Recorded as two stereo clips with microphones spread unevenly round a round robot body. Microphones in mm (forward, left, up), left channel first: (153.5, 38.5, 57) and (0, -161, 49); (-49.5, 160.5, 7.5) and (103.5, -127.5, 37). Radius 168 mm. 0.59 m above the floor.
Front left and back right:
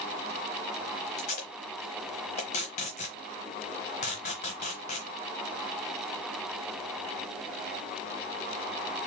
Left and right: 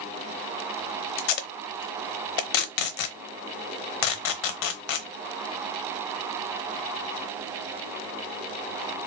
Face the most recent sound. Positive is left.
turn(degrees=125)